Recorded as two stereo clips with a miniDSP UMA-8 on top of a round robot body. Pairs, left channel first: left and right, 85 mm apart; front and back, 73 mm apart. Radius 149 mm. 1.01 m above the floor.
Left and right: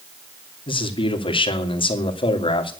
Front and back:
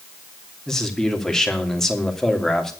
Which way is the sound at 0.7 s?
85° left.